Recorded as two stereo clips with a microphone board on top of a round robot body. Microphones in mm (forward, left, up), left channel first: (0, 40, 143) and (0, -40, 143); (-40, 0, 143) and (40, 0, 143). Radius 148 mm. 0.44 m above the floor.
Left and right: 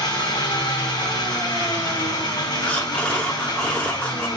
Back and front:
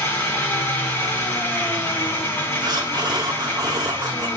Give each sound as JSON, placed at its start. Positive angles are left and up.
{"t": 0.0, "sound": "an engine running", "azimuth_deg": 115, "distance_m": 4.0}
{"t": 2.6, "sound": "breathing", "azimuth_deg": 20, "distance_m": 1.6}